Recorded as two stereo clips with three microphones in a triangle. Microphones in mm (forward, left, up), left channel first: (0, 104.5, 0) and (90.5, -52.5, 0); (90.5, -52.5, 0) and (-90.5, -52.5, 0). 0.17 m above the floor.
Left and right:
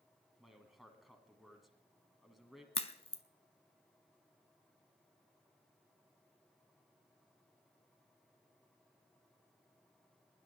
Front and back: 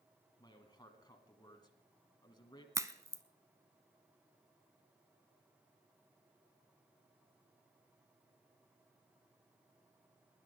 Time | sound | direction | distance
0.4 | a man speaking | 30° left | 1.4 m
2.8 | a crack | 125° left | 0.5 m